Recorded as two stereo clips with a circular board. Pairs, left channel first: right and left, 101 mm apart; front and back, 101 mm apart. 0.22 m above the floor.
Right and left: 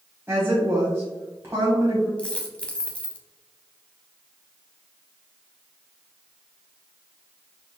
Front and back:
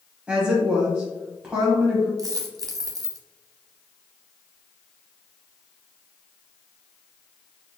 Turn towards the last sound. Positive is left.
turn(degrees=-160)